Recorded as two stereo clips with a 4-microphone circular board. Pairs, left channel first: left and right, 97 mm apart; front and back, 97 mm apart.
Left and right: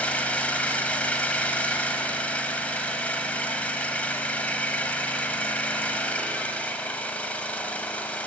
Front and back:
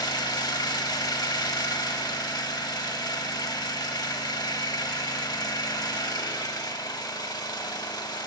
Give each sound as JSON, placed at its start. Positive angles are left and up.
{"t": 0.0, "sound": "an engine running", "azimuth_deg": 20, "distance_m": 0.8}